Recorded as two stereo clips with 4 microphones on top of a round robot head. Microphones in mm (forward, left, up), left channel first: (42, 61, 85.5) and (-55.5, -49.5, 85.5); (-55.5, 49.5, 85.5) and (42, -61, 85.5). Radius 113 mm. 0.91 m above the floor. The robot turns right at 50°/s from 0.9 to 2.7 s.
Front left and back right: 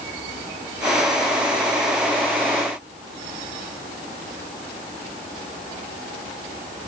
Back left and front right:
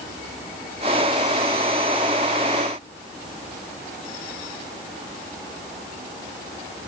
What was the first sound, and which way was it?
Only background noise.